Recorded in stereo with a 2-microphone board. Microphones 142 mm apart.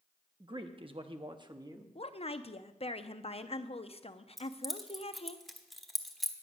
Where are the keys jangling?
Centre (ahead or behind), 1.0 m.